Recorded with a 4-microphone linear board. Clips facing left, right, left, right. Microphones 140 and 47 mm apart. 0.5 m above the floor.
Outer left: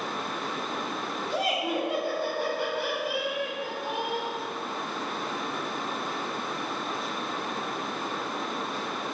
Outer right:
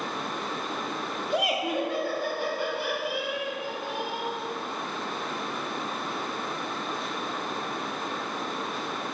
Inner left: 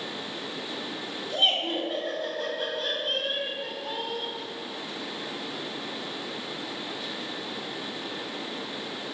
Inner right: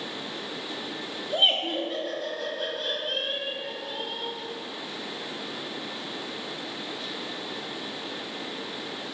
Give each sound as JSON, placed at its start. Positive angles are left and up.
{"t": 1.3, "sound": "laughter", "side_deg": -20, "distance_m": 0.9}